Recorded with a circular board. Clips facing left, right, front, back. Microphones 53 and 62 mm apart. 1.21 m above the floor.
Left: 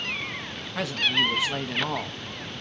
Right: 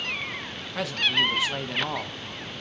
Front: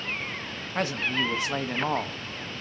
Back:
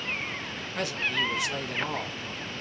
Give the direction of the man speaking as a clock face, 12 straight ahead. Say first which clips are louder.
Even, front 2 dB; 12 o'clock.